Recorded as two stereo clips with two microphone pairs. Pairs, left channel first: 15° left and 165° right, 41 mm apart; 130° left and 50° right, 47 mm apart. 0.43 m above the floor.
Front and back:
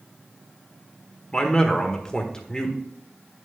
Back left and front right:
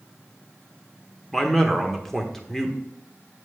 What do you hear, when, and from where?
1.3 s a man speaking: 60° left, 1.3 m